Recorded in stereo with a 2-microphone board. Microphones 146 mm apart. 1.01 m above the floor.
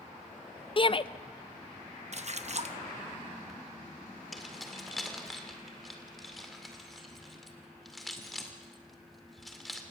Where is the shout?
40° left (ahead or behind), 0.6 m.